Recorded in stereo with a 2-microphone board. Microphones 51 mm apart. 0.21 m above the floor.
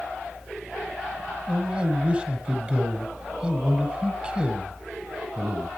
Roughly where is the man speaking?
Right.